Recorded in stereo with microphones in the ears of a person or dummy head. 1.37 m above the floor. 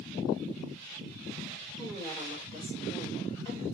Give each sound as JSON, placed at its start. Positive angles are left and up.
{"t": 1.8, "sound": "a woman speaking", "side_deg": 15, "distance_m": 5.5}